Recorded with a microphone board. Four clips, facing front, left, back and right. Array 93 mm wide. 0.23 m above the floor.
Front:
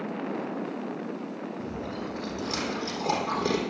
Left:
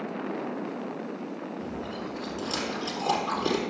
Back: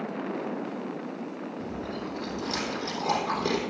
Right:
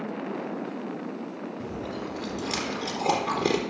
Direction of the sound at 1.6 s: 85° right.